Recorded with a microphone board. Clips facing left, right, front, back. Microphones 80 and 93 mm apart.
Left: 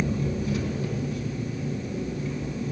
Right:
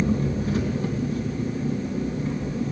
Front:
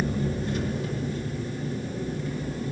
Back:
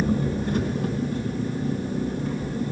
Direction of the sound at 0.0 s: 145° right.